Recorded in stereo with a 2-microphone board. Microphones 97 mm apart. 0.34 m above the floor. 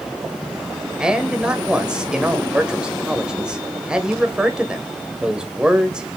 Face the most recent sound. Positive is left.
turn(degrees=-10)  # may be behind; listen again after turning